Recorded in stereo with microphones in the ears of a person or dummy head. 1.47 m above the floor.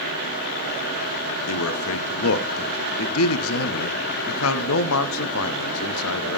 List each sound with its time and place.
1.5 s a man speaking: 80° left, 0.6 m